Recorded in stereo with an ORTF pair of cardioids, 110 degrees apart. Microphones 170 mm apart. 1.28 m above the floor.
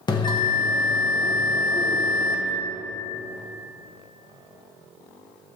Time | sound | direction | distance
0.1 | a bell | 30° left | 1.3 m